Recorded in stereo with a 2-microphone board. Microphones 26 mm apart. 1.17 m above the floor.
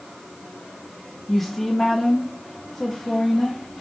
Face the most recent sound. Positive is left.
turn(degrees=15)  # may be behind; listen again after turning